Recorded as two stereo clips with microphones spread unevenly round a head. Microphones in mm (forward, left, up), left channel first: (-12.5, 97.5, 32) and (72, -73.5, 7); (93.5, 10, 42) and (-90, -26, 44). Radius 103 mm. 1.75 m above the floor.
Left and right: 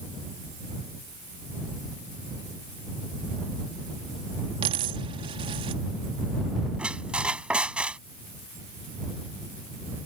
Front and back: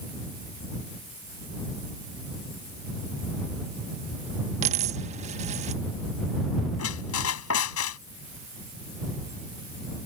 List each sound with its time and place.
4.6 s a dropped coin: 130° right
6.8 s a squeak: 25° left